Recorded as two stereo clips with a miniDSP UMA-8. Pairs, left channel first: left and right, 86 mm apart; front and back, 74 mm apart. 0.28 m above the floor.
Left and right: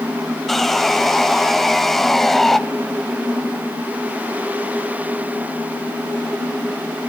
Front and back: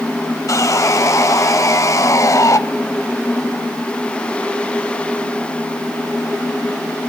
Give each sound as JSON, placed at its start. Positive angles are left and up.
{"t": 0.5, "sound": "sawing", "azimuth_deg": 5, "distance_m": 0.7}